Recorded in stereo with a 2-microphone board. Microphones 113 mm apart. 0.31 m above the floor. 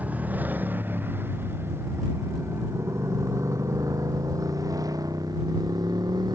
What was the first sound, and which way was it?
A motorcycle, 15° right (ahead or behind).